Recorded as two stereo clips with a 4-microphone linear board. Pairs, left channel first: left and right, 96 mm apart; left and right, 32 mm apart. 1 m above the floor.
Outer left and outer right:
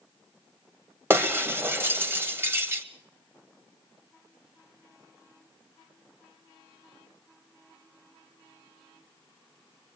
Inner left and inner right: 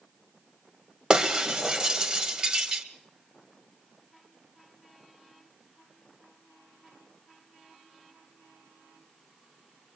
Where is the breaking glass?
25° right (ahead or behind), 1.5 m.